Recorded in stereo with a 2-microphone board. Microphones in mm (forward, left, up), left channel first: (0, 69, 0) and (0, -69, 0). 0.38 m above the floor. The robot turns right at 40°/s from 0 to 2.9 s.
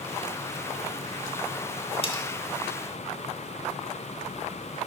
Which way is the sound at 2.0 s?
45° left (ahead or behind).